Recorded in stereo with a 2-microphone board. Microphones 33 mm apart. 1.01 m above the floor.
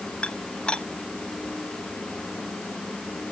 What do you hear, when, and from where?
0.2 s dishes clattering: 35° left (ahead or behind)